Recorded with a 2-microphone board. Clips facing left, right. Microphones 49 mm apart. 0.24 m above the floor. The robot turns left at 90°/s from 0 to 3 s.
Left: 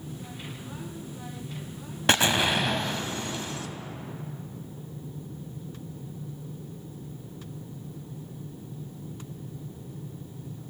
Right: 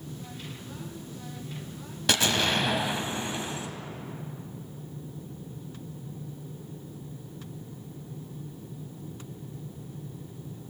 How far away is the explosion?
About 0.8 m.